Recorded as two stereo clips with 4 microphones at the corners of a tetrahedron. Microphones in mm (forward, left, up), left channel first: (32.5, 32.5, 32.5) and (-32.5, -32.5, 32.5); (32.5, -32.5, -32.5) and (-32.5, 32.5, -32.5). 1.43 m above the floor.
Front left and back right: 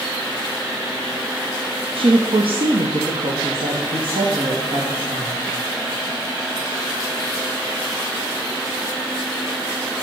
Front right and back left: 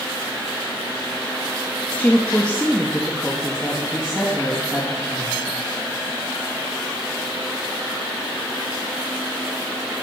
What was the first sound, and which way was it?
A woman speaking, 120° right.